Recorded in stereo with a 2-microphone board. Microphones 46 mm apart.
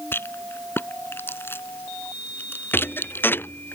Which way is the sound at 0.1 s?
55° left (ahead or behind).